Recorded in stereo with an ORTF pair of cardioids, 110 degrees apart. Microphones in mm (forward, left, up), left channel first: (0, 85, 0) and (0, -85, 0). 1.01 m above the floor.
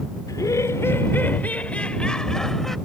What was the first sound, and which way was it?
Laughter, 20° left.